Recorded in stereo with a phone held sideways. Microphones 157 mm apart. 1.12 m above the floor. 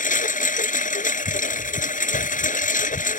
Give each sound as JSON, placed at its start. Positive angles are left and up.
{"t": 0.0, "sound": "a lawn mower", "side_deg": 55}